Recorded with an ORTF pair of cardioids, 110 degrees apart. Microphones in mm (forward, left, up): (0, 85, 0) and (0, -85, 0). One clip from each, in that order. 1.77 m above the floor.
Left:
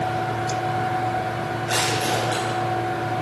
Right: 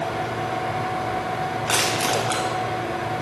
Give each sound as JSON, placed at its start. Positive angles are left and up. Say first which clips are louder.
{"t": 0.0, "sound": "a fan", "louder": "left 1 dB", "azimuth_deg": -35, "distance_m": 5.5}
{"t": 1.7, "sound": "crushing", "louder": "right 1 dB", "azimuth_deg": -65, "distance_m": 6.0}